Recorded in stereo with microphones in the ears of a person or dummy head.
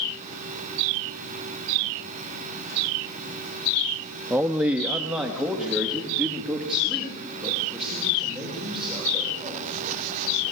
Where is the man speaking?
5° right (ahead or behind), 0.6 m; by 9.7 s centre (ahead or behind), 7 m.